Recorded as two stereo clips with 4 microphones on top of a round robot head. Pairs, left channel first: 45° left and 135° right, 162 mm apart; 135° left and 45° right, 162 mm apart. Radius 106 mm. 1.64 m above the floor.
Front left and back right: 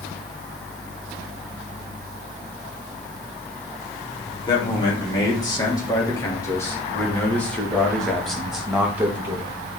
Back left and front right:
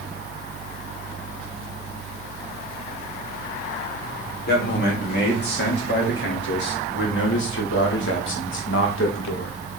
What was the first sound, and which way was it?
A man speaking, 110° left.